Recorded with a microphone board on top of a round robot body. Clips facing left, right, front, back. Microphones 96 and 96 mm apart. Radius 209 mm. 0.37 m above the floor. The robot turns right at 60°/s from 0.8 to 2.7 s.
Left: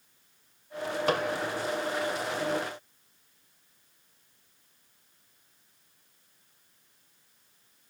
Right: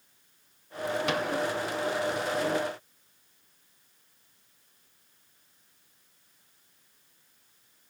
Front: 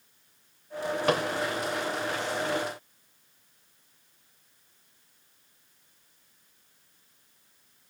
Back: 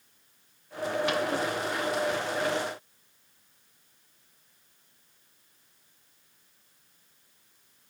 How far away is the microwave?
About 2.5 m.